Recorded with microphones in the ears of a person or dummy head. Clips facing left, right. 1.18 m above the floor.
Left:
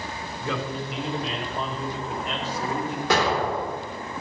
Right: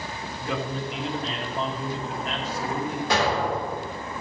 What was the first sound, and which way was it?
A man speaking, 85° left.